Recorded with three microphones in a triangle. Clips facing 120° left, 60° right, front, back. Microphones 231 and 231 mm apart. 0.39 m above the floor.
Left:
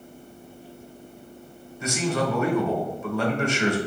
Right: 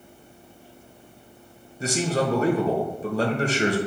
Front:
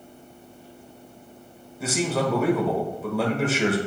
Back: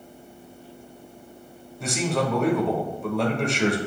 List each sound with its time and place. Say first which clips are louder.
1.8 s a man speaking: right 1 dB, front 1 dB; 85° right, 1.0 m